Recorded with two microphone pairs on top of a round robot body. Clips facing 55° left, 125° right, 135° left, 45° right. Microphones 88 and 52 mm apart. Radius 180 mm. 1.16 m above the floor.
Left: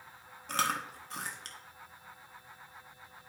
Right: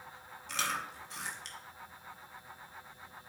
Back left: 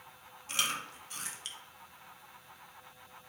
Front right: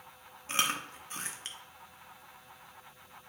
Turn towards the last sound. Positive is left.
turn(degrees=15)